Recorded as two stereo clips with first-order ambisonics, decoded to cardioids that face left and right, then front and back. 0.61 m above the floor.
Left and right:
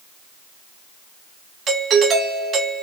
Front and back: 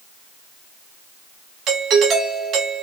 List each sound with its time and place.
1.7 s a doorbell: 145° right, 1.5 m